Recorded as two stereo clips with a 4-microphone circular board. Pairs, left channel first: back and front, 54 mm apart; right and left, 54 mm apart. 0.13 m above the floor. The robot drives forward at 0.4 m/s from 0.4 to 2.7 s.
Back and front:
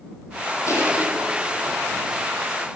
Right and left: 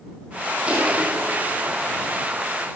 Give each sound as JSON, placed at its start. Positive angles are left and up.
{"t": 0.7, "sound": "crushing", "azimuth_deg": 155, "distance_m": 4.0}